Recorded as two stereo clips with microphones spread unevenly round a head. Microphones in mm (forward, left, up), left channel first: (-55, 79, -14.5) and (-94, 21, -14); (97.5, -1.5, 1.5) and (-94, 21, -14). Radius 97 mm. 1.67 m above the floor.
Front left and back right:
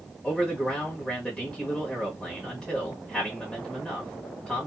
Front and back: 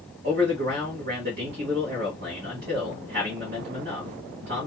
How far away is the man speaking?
About 1.3 m.